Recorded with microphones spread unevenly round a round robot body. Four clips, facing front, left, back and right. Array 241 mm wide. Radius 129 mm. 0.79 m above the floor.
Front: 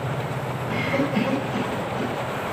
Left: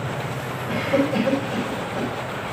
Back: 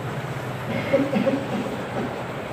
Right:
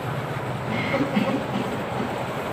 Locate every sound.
0.7 s a cough: 160° left, 5 m